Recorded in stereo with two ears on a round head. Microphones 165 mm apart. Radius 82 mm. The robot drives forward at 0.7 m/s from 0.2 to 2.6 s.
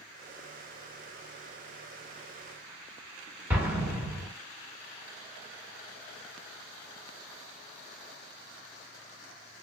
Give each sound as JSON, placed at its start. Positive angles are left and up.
{"t": 3.5, "sound": "an explosion", "side_deg": -10, "distance_m": 1.1}